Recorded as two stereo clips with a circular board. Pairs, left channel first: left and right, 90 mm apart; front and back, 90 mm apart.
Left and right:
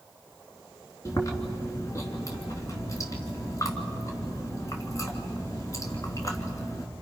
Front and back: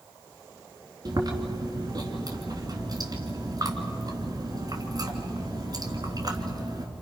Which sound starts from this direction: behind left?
Chewing, at 1.1 s.